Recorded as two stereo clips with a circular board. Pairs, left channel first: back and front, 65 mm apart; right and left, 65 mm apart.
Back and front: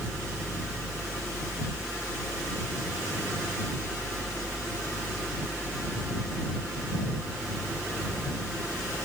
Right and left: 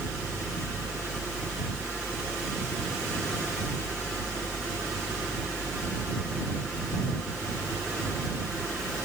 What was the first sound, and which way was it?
Only background noise.